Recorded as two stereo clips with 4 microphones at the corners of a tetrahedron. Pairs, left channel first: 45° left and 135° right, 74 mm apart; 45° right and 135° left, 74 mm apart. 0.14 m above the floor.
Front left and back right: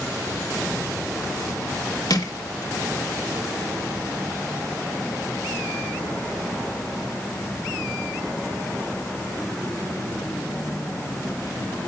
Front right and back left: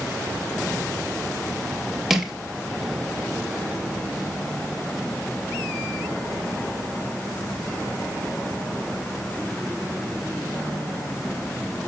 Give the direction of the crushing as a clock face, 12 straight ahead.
10 o'clock.